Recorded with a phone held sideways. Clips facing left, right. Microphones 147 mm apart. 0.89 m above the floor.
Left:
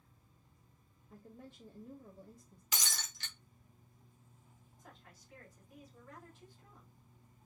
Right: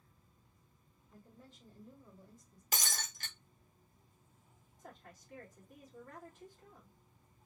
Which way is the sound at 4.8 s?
45° right (ahead or behind).